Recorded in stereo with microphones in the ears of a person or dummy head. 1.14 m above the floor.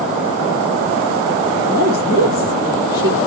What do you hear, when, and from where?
1.7 s a woman speaking: 55° left (ahead or behind), 1.8 m